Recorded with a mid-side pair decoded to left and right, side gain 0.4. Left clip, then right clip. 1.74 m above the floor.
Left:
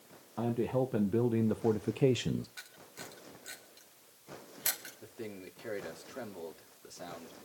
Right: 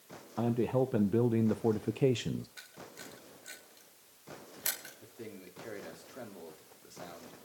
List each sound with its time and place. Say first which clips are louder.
0.4 s a man speaking: right 1 dB; 15° right, 1.4 m; by 2.5 s 40° left, 0.5 m
2.6 s a camera shutter: even; 10° left, 4 m
5.0 s a man speaking: left 3 dB; 30° left, 3.5 m